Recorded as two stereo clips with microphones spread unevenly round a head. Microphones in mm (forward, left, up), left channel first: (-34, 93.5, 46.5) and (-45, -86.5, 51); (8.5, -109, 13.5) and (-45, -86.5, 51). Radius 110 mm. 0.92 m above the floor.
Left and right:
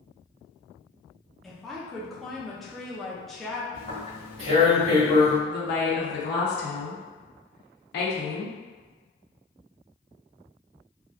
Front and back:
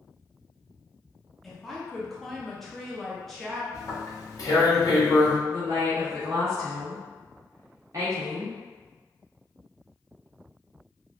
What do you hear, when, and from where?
1.4 s a woman speaking: straight ahead, 0.6 m
3.7 s tearing paper: 60° right, 1.5 m
5.5 s a woman speaking: 85° left, 0.7 m